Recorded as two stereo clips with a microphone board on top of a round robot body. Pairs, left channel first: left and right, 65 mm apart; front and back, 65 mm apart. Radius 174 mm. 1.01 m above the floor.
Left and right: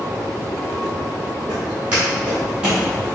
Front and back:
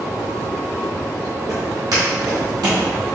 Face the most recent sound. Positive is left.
turn(degrees=-170)